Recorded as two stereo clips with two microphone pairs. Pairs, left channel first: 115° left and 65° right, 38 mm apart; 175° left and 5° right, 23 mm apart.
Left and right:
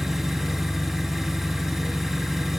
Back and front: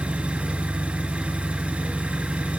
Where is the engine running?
25° left, 3.5 m.